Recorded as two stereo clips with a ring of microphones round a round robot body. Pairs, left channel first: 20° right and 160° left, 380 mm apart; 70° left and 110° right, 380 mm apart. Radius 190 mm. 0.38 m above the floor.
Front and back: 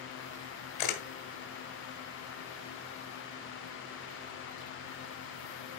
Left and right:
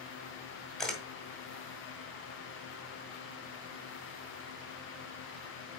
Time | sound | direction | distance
0.8 | a camera shutter | 20° right | 1.8 m